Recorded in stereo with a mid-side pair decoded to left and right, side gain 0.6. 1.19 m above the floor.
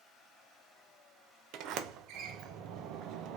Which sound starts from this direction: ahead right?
A sliding door, at 1.5 s.